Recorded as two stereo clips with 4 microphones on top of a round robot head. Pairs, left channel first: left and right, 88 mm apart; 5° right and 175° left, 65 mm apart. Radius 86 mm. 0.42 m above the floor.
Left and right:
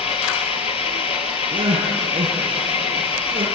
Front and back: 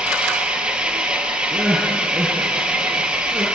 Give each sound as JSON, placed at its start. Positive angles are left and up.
{"t": 0.0, "sound": "an engine running", "azimuth_deg": 100, "distance_m": 2.5}
{"t": 1.5, "sound": "crying", "azimuth_deg": -115, "distance_m": 4.5}